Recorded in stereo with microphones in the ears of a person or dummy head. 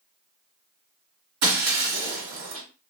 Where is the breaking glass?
45° right (ahead or behind), 1.3 m.